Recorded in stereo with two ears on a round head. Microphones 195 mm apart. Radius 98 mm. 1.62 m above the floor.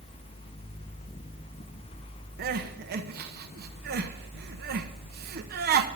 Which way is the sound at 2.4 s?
45° right (ahead or behind).